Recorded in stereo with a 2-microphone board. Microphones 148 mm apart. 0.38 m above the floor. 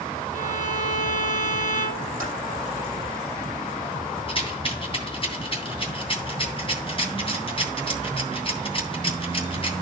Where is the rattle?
40° left (ahead or behind), 2.5 m.